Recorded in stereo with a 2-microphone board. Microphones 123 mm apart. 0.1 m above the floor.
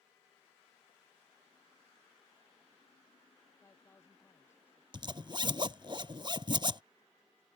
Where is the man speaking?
20° left (ahead or behind).